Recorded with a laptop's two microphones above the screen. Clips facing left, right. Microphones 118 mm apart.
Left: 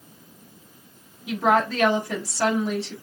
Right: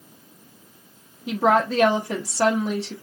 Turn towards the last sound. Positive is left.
turn(degrees=-35)  # may be behind; listen again after turning